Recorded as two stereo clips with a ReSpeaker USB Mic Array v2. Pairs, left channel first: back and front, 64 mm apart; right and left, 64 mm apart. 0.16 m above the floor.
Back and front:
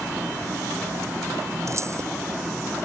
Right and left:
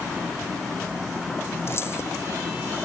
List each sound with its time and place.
1.7 s keys jangling: 40° right